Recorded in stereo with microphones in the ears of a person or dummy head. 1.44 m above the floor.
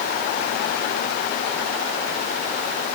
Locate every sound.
Only background noise.